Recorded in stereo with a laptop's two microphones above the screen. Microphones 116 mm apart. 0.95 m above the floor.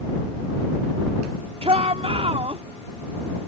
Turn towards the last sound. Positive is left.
turn(degrees=-60)  # may be behind; listen again after turning